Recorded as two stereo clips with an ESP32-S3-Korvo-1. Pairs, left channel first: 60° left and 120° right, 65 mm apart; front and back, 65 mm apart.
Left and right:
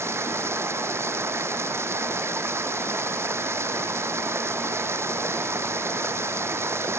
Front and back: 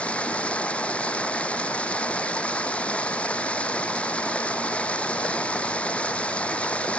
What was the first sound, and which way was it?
Running water, 75° right.